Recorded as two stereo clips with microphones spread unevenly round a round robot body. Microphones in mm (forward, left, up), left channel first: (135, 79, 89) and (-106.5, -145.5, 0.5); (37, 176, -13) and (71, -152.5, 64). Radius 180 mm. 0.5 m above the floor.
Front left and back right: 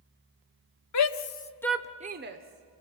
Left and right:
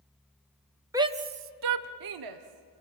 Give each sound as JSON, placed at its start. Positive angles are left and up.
{"t": 0.9, "sound": "a shout", "azimuth_deg": 5, "distance_m": 1.1}